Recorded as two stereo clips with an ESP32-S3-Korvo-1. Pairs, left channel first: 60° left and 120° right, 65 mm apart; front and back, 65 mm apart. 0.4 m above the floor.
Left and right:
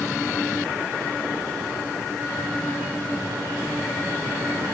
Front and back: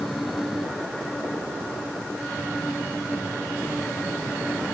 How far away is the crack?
I don't hear a crack.